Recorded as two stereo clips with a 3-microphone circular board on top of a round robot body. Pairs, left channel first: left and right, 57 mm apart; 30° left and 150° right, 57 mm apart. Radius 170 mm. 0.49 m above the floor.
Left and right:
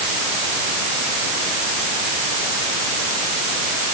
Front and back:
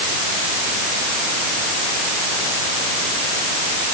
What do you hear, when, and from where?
Only background noise.